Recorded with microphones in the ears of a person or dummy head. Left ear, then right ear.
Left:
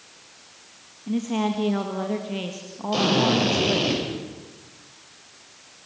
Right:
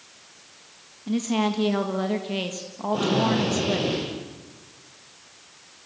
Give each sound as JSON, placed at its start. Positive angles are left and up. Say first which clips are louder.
{"t": 1.1, "sound": "a woman speaking", "louder": "right 1 dB", "side_deg": -25, "distance_m": 1.6}
{"t": 2.9, "sound": "a drill", "louder": "left 3 dB", "side_deg": 65, "distance_m": 9.5}